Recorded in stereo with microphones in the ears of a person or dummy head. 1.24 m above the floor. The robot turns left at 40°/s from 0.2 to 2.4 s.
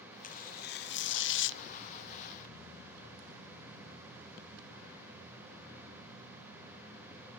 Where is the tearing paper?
130° left, 0.8 m; by 1.6 s 75° left, 0.8 m.